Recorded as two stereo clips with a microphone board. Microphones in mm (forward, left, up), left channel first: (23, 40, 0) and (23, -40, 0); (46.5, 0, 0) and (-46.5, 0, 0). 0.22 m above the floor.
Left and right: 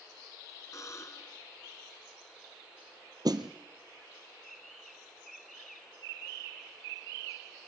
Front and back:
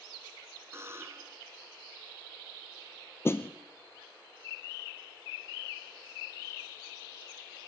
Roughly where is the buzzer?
Behind left.